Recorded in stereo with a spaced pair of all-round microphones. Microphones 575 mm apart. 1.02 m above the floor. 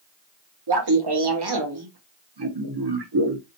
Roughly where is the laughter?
Right.